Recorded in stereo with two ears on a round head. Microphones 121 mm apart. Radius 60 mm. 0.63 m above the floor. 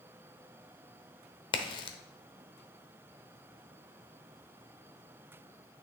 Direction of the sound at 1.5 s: 35° left (ahead or behind).